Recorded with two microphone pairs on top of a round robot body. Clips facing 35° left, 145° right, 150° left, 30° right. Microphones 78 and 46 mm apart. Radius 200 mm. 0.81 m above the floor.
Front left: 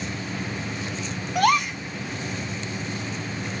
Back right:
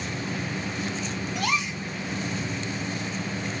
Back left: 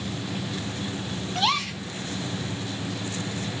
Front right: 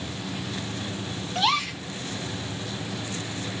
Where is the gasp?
50° left, 0.8 m.